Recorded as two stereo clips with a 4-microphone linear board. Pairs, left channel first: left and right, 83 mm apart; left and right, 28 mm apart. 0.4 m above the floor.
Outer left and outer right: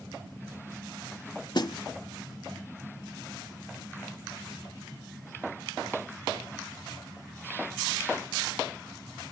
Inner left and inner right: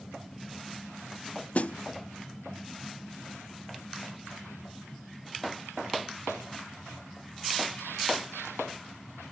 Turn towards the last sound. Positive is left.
turn(degrees=60)  # may be behind; listen again after turning